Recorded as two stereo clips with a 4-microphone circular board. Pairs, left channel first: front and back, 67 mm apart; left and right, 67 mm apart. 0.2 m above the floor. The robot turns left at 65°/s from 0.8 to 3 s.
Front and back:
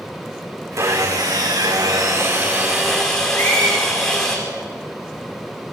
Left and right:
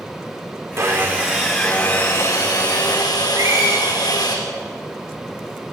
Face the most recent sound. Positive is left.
turn(degrees=-60)